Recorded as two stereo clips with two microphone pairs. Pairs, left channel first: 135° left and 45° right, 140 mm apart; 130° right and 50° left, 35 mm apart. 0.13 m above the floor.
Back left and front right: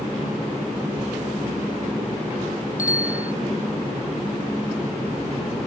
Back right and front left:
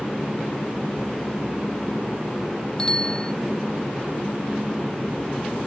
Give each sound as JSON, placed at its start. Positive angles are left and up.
{"t": 2.8, "sound": "a bicycle bell", "azimuth_deg": 160}